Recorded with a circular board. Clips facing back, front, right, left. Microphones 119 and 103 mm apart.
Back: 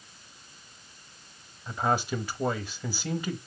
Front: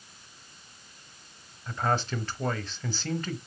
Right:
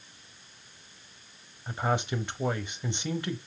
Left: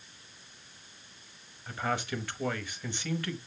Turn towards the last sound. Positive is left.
turn(degrees=-115)